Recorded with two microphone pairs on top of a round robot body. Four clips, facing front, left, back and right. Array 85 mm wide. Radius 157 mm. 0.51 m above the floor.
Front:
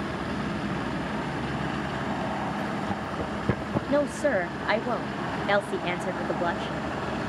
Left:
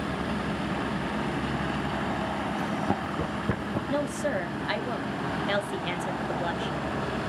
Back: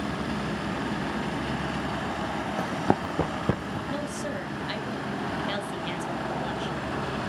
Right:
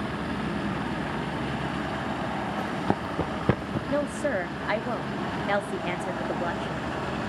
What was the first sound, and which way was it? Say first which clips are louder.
Running footsteps: right 2 dB, back 4 dB; 170° right.